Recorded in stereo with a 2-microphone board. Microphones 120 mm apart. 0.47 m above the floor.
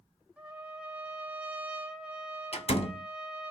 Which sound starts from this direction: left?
A door slam, at 2.5 s.